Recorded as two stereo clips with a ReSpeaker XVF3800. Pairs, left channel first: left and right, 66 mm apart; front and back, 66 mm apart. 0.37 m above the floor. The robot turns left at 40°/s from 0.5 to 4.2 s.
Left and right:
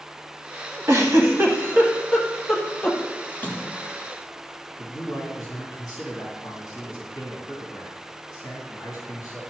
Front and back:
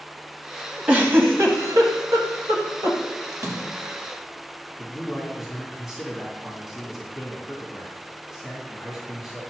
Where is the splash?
155° left, 1.7 m; by 4.0 s 125° left, 1.7 m.